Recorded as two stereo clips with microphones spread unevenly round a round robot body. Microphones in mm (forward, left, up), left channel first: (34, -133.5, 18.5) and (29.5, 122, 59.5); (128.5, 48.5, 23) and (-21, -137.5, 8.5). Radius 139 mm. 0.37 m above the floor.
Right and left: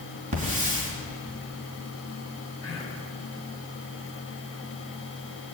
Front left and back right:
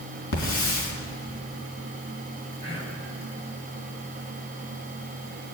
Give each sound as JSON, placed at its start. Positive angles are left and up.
{"t": 0.3, "sound": "a hiss", "azimuth_deg": 30, "distance_m": 3.5}
{"t": 2.6, "sound": "whispering", "azimuth_deg": -15, "distance_m": 3.5}